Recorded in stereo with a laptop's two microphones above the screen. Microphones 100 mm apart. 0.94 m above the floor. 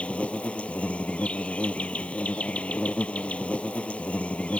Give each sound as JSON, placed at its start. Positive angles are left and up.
{"t": 0.0, "sound": "an insect", "side_deg": 10}